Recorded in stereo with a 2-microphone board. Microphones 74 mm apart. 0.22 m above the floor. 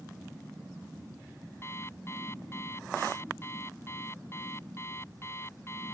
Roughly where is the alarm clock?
Left.